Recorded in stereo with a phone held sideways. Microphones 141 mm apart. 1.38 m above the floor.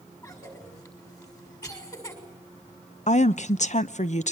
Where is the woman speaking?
55° left (ahead or behind), 0.8 m.